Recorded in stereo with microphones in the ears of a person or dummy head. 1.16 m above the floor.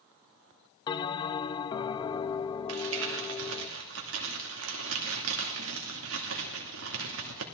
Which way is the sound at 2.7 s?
70° right (ahead or behind).